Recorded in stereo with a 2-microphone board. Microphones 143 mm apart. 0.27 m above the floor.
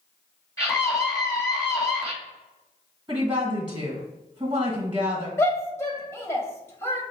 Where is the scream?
20° left (ahead or behind), 1.8 m.